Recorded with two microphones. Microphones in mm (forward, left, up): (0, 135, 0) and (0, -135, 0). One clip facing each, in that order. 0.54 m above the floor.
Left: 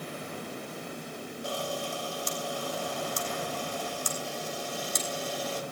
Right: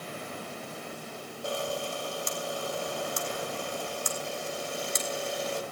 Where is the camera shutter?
25° right (ahead or behind), 3.5 m.